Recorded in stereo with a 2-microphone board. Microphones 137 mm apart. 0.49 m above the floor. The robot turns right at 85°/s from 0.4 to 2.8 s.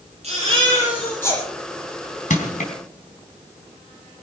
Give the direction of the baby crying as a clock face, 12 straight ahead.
2 o'clock.